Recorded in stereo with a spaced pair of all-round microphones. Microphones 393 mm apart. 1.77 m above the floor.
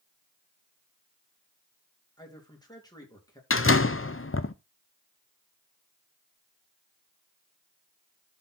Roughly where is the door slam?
Left.